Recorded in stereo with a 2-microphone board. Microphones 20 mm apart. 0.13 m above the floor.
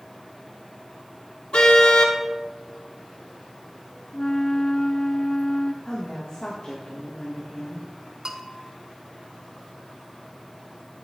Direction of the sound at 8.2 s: 30° right (ahead or behind).